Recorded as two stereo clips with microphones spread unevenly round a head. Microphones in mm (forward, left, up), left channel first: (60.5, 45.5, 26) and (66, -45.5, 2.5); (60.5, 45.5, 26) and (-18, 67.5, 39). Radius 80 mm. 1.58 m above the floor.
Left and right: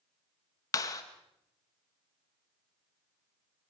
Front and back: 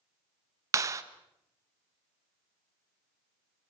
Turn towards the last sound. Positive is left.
turn(degrees=135)